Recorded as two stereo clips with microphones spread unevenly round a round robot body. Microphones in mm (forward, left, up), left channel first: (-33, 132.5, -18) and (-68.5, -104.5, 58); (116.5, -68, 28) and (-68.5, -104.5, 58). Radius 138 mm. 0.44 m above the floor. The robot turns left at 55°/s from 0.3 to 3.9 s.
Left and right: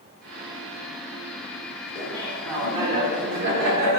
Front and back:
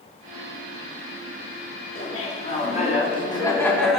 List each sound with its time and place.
1.9 s laughter: 40° left, 1.0 m; by 4.0 s 70° right, 1.0 m